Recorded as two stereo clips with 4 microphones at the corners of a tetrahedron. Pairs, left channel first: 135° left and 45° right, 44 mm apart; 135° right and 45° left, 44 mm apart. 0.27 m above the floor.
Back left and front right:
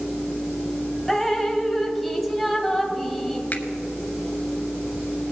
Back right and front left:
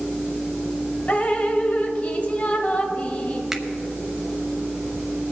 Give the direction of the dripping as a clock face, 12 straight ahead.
5 o'clock.